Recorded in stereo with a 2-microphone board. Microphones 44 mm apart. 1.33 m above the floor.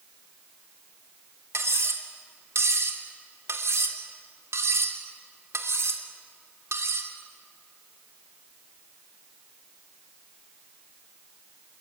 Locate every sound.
1.5 s cutlery clinking: 80° right, 2.5 m